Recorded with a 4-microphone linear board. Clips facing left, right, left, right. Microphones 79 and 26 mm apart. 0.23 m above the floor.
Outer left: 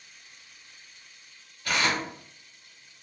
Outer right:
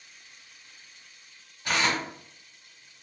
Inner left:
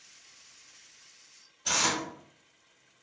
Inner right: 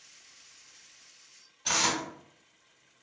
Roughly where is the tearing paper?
Right.